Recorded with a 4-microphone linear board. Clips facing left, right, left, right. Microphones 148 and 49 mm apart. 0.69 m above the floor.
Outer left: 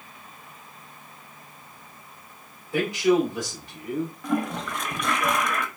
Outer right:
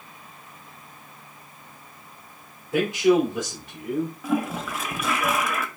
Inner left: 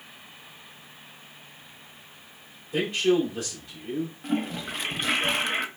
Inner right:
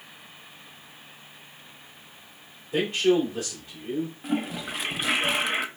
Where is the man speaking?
20° right (ahead or behind), 2 m.